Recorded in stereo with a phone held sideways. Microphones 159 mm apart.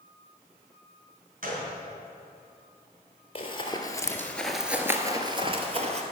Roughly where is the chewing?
I don't hear chewing.